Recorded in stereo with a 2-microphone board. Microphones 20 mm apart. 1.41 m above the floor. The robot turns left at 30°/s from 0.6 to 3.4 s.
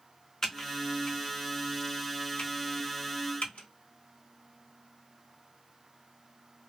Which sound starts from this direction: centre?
Typing on a keyboard, at 0.4 s.